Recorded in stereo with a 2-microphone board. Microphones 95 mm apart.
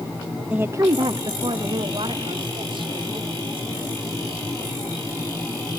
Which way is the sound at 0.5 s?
10° right (ahead or behind).